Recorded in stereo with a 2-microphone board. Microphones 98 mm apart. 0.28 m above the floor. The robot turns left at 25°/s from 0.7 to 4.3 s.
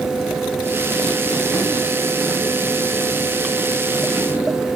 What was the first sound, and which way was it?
Only background noise.